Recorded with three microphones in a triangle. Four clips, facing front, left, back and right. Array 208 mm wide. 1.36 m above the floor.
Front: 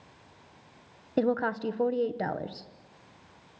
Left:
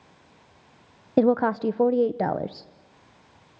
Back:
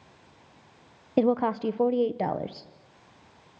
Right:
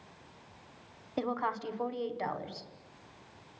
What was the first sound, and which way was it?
A woman speaking, 105° left.